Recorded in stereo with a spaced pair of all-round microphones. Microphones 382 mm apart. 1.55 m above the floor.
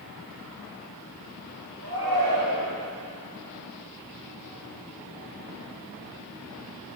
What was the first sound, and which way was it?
A shout, 70° right (ahead or behind).